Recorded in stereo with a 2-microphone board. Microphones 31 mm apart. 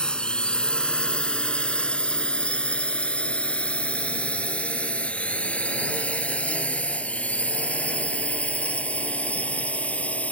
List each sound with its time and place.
0.0 s a drone: 30° left (ahead or behind); by 10.3 s 45° left (ahead or behind)